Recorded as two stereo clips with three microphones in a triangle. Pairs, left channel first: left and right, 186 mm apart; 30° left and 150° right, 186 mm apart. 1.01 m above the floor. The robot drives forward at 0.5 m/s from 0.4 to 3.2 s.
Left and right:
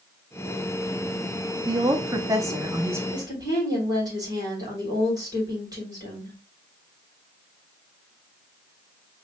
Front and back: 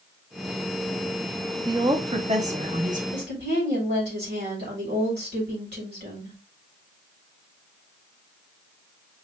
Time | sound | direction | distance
1.7 | a woman speaking | 120° right | 0.8 m
3.1 | a woman speaking | 160° right | 3.5 m